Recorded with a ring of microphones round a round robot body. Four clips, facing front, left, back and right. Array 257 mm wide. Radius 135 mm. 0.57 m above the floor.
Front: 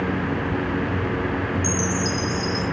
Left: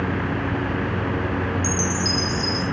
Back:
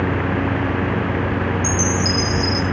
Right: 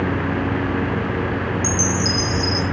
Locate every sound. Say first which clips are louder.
1.6 s a chime: right 3 dB, back 3 dB; 165° left, 1.3 m